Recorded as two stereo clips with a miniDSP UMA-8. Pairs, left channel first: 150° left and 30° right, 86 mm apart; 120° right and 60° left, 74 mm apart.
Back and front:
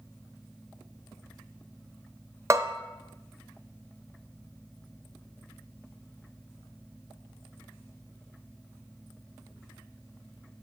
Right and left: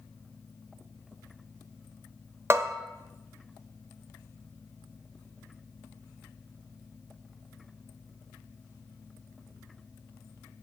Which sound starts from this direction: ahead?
A bell, at 2.5 s.